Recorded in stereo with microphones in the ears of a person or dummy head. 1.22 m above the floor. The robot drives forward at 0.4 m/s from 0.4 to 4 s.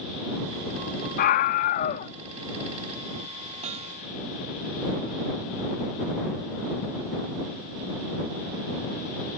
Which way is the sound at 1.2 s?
55° left (ahead or behind).